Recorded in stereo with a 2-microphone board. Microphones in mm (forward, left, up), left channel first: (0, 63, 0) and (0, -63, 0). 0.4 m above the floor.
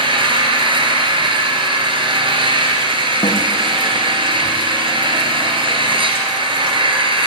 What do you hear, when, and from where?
0.0 s an engine running: 40° right (ahead or behind), 3.5 m
3.2 s a snare drum: 40° left (ahead or behind), 3.5 m